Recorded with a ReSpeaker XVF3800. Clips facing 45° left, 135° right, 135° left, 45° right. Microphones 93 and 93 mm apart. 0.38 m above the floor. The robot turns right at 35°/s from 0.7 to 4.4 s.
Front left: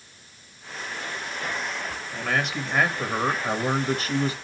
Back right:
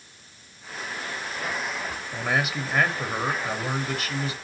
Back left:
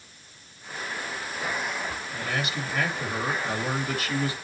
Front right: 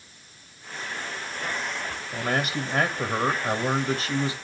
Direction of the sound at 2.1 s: 65° right.